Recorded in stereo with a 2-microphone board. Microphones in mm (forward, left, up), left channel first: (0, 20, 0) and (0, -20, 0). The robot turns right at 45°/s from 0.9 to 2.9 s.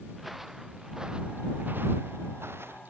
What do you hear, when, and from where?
0.1 s footsteps: centre (ahead or behind); by 2.8 s 70° right (ahead or behind)